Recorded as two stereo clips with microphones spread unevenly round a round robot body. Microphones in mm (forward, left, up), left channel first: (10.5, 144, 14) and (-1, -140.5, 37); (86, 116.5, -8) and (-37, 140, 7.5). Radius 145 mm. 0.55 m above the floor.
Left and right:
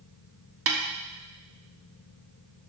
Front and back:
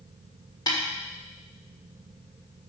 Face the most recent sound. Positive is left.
turn(degrees=-65)